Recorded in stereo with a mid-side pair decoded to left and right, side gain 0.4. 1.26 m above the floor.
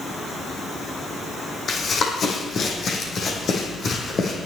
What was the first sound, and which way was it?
Running footsteps, 55° left.